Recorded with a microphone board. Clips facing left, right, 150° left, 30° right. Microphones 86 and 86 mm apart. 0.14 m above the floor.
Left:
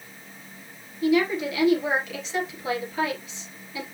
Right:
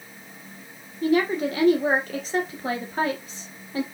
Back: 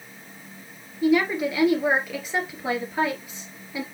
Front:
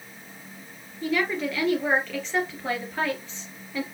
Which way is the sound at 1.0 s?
130° right.